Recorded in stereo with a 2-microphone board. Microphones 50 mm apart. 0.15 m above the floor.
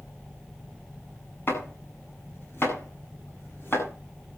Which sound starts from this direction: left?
Chopping, at 1.5 s.